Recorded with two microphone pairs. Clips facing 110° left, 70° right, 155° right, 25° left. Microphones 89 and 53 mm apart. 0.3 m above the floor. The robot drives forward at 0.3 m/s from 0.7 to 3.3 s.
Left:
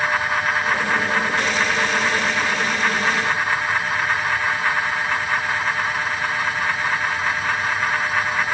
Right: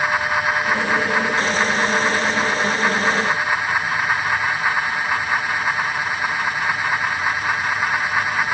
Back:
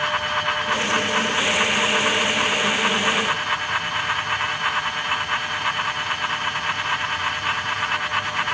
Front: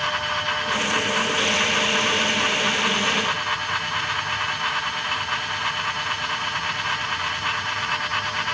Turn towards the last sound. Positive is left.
No sound to turn to.